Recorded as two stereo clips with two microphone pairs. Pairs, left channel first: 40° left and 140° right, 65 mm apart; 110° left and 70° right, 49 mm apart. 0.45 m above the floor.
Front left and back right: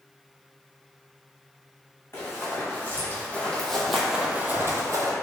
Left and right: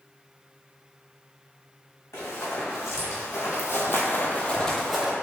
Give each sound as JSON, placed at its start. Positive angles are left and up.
{"t": 2.1, "sound": "running footsteps", "azimuth_deg": 90, "distance_m": 1.6}